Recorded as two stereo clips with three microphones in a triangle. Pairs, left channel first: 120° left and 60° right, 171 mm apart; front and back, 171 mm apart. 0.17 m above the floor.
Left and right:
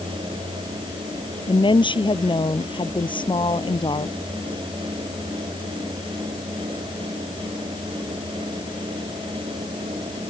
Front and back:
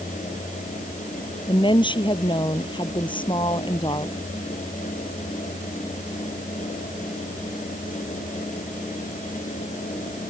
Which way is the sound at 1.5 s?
60° left.